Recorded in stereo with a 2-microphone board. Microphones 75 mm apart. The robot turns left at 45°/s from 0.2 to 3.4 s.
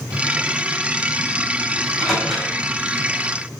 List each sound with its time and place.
1.8 s a microwave: 20° left (ahead or behind), 4.5 m; by 2.5 s 15° right (ahead or behind), 4.5 m